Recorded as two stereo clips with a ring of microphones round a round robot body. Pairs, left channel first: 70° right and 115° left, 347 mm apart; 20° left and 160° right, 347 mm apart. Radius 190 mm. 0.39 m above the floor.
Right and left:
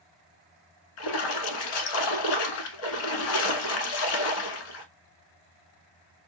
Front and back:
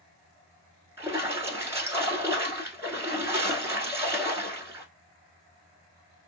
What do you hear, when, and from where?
1.0 s a splash: 75° right, 1.0 m